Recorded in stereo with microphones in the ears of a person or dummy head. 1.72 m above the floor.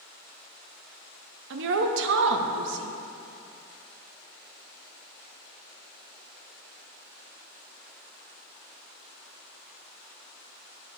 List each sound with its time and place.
1.5 s a woman speaking: 65° right (ahead or behind), 0.6 m